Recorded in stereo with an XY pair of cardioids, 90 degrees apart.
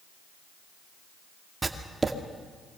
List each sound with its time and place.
1.6 s writing: 25° right, 2 m